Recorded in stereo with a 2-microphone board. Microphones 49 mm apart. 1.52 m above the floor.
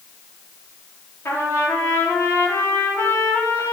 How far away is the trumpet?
About 3.5 m.